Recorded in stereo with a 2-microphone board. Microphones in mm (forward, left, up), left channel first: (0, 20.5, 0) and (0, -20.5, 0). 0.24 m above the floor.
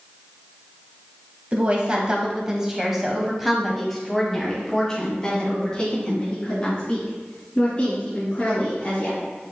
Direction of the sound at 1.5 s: 30° right (ahead or behind).